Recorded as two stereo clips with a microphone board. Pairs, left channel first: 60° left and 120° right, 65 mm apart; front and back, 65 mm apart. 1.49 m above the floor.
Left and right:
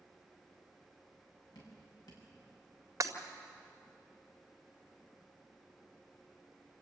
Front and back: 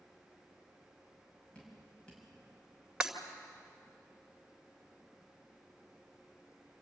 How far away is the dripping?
About 6.5 m.